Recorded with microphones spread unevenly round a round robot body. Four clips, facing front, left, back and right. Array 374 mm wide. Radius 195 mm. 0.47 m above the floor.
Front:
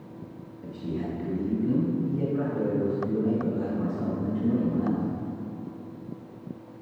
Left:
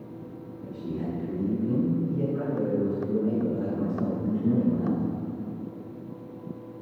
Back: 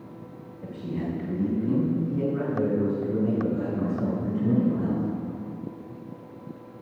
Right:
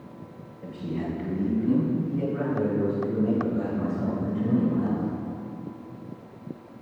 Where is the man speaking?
145° right, 3 m; by 5.0 s 150° right, 8.5 m.